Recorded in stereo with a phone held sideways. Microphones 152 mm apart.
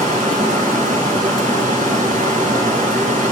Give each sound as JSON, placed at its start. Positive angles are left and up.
{"t": 0.0, "sound": "running water", "side_deg": -60, "distance_m": 5.5}